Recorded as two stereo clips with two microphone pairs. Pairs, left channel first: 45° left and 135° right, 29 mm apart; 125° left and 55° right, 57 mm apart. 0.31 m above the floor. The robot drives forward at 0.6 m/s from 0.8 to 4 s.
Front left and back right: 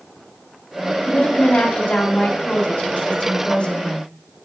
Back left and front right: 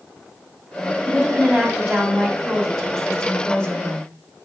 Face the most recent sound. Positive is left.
turn(degrees=65)